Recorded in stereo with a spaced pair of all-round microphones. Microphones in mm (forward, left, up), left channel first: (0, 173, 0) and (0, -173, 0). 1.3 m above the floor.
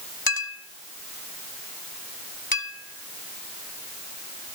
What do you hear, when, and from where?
0.3 s a clink: 75° left (ahead or behind), 2.5 m